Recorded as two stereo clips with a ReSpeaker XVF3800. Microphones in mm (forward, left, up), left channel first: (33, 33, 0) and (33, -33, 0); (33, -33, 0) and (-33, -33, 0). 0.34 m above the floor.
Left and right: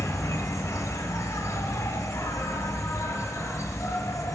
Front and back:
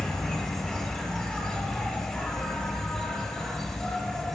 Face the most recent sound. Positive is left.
turn(degrees=70)